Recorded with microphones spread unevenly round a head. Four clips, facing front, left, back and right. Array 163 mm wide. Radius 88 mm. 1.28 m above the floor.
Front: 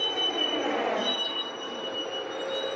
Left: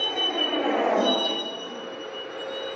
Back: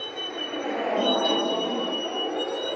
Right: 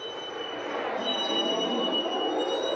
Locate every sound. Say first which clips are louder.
0.0 s a vehicle: left 7 dB, front 3 dB; 85° left; by 2.8 s 120° right